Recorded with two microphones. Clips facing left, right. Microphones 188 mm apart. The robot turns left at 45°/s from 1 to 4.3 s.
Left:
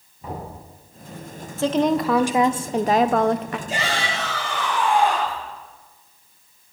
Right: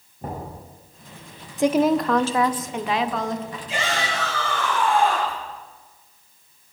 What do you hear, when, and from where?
0.2 s knocking: 55° right (ahead or behind), 9.5 m
1.6 s a woman speaking: 165° right, 0.7 m; by 3.6 s 105° left, 0.7 m
3.7 s a shout: 45° left (ahead or behind), 9 m; by 5.4 s 20° left (ahead or behind), 9 m